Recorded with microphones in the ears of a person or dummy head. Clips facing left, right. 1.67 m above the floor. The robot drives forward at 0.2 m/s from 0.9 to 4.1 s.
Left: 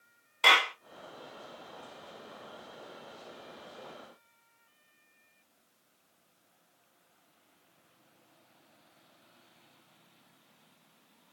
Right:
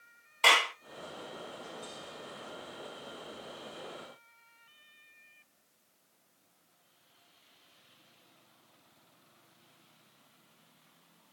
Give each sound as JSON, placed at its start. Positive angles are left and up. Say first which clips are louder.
{"t": 0.4, "sound": "a clap", "louder": "even", "side_deg": 0, "distance_m": 1.4}